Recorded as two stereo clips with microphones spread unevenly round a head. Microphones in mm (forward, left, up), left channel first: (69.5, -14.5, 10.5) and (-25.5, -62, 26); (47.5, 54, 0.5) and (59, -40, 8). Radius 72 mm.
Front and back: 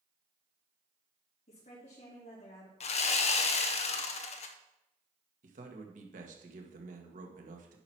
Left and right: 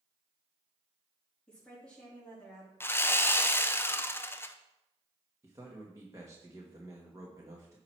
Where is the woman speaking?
15° left, 3.5 m.